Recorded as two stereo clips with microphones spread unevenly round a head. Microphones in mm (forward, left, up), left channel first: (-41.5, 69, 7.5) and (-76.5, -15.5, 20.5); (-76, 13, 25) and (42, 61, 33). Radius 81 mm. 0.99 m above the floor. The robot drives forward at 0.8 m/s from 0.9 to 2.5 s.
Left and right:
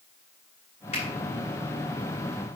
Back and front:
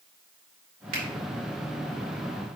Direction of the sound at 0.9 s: 20° left.